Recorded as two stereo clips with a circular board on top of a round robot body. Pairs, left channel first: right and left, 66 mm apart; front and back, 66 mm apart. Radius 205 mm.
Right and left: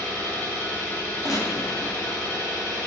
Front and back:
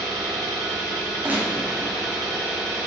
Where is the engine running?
140° right, 1.4 m.